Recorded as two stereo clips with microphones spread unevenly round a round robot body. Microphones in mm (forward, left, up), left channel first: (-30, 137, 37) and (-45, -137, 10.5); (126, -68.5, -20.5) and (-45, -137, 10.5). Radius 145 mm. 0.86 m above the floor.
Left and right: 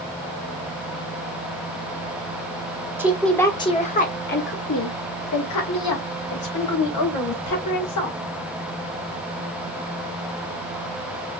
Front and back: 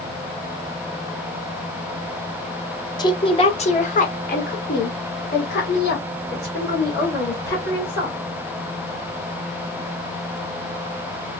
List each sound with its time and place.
3.0 s a woman speaking: 20° right, 1.1 m; by 8.2 s 65° left, 3.5 m